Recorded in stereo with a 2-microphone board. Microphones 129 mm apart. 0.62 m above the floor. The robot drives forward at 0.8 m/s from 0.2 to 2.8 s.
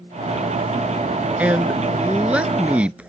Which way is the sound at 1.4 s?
10° right (ahead or behind).